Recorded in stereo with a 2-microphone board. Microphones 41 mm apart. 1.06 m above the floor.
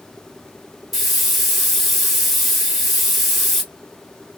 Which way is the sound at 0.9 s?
5° right (ahead or behind).